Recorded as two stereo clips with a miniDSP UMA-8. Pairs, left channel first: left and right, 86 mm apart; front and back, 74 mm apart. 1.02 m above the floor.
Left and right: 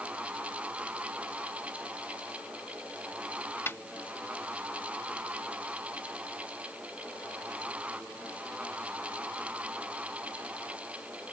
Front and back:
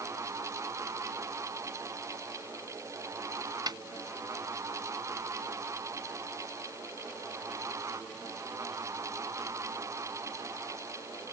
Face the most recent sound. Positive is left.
turn(degrees=155)